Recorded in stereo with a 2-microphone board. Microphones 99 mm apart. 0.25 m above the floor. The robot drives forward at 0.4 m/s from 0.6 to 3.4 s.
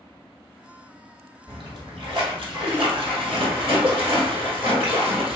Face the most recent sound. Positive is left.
turn(degrees=-75)  # may be behind; listen again after turning